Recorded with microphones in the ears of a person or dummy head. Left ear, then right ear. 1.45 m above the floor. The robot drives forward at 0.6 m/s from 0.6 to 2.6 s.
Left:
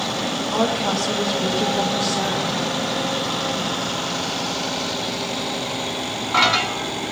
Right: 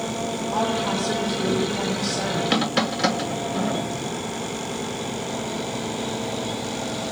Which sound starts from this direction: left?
A woman speaking, at 0.5 s.